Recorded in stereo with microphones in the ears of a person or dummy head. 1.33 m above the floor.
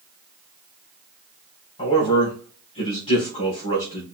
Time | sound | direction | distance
1.8 | a man speaking | 30° left (ahead or behind) | 3.5 m